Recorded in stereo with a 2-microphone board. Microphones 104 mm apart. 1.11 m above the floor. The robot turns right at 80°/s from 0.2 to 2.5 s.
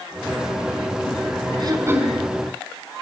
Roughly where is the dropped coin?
No dropped coin in this recording.